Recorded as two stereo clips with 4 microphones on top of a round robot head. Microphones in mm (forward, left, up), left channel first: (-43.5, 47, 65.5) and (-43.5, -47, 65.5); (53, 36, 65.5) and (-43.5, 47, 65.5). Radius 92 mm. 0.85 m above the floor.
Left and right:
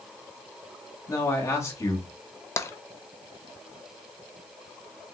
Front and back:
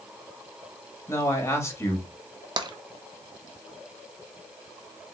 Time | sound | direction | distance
1.1 | a man speaking | 40° left | 1.3 m
2.6 | tapping | 145° left | 0.6 m